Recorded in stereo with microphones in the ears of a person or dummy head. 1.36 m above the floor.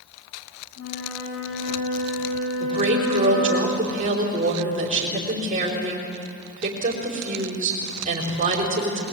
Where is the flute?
75° left (ahead or behind), 8 m.